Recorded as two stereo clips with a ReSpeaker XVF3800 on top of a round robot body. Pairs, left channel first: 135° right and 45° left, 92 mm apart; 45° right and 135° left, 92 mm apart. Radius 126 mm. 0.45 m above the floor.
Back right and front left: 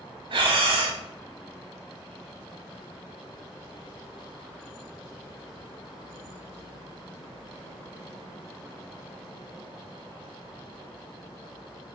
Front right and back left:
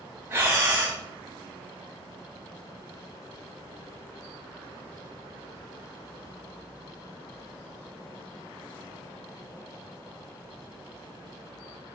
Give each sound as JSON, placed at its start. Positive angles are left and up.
{"t": 0.3, "sound": "breathing", "azimuth_deg": 70, "distance_m": 0.9}